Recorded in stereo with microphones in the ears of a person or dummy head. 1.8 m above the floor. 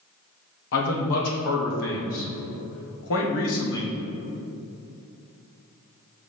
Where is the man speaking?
65° left (ahead or behind), 1.3 m.